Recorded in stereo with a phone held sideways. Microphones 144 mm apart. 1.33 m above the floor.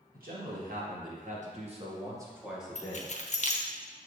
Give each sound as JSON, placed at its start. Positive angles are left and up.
{"t": 0.1, "sound": "a man speaking", "side_deg": -85, "distance_m": 1.7}
{"t": 2.8, "sound": "keys jangling", "side_deg": 50, "distance_m": 0.5}